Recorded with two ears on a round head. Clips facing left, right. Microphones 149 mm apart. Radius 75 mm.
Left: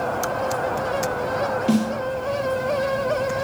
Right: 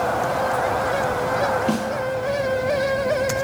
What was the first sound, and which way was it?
A snare drum, 5° left (ahead or behind).